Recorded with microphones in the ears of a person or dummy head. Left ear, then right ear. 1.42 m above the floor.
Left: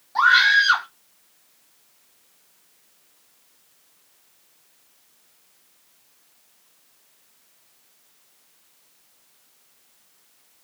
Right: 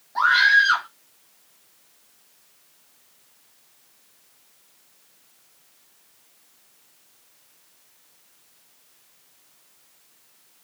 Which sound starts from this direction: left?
A scream, at 0.1 s.